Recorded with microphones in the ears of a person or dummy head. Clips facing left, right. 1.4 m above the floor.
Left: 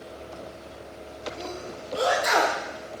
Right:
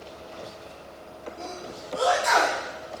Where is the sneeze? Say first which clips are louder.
Left 2 dB; 25° left (ahead or behind), 1.5 m.